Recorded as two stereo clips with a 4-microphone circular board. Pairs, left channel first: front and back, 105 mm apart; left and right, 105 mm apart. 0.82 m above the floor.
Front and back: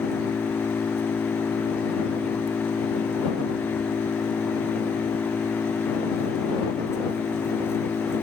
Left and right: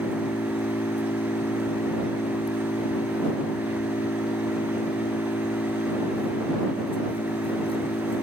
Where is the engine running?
65° left.